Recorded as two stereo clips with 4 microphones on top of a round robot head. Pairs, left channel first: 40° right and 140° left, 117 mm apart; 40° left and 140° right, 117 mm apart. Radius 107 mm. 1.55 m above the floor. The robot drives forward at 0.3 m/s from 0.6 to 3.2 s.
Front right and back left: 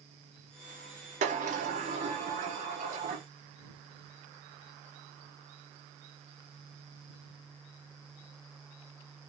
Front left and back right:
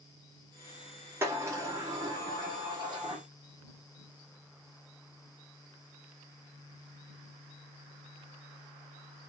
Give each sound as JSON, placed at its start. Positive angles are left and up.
{"t": 1.2, "sound": "a sliding door", "azimuth_deg": 155, "distance_m": 0.6}